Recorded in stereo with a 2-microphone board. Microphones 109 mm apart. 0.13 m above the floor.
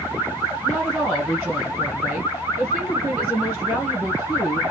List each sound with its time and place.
0.6 s a woman speaking: centre (ahead or behind), 1.6 m